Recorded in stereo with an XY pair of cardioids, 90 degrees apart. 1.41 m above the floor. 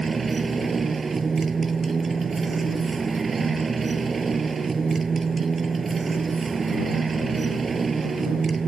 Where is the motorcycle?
35° right.